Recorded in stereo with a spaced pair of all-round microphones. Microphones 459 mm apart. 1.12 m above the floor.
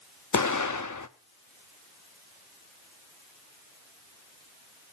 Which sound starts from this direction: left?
An explosion, at 0.3 s.